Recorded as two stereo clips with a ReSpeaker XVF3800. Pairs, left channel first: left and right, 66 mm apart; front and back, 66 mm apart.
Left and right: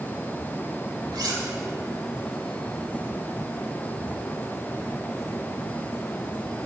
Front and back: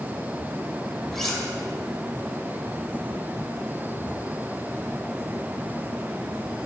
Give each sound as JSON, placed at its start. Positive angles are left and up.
{"t": 1.1, "sound": "cutlery clinking", "azimuth_deg": -85, "distance_m": 2.0}